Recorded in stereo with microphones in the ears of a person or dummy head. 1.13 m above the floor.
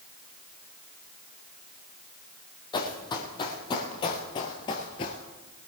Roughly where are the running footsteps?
Left.